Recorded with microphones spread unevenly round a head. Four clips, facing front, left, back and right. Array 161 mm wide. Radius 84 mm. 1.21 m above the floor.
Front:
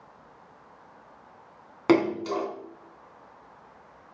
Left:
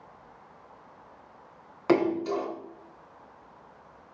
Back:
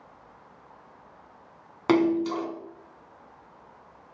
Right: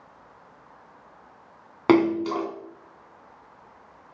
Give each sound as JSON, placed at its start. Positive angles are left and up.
{"t": 1.9, "sound": "a splash", "azimuth_deg": -90, "distance_m": 2.5}